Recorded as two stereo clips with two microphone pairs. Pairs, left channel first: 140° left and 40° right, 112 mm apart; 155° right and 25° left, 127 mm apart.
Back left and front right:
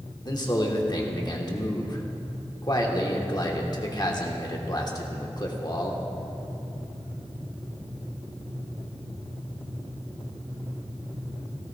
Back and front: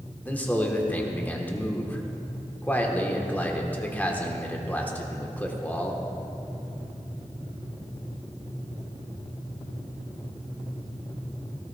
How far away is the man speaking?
About 1.2 m.